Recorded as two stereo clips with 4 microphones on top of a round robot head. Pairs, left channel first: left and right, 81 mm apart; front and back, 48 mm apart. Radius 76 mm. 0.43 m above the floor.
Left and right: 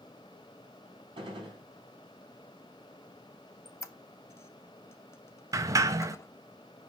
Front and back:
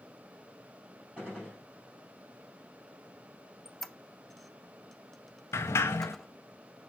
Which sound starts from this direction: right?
A gunshot, at 1.2 s.